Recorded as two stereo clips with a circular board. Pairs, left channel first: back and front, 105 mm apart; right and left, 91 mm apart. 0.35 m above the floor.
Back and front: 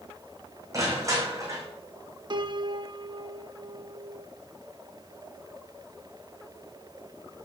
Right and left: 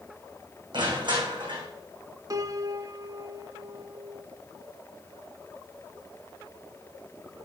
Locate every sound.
0.7 s crushing: 60° left, 3.5 m
2.3 s a piano: 40° left, 0.6 m